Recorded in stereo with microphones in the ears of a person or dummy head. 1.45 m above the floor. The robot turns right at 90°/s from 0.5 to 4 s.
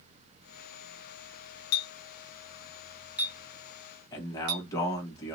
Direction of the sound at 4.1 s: 20° left (ahead or behind).